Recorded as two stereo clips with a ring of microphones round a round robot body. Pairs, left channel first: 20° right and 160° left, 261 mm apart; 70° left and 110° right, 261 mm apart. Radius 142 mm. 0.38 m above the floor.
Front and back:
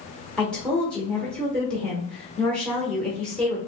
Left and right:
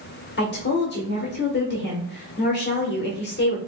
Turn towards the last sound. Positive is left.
turn(degrees=60)